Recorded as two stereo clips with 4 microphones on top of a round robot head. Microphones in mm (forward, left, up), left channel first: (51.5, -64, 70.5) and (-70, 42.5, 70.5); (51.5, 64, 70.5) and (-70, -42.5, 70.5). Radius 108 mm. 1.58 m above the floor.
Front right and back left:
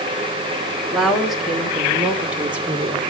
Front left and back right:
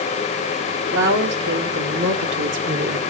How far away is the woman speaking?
About 3 m.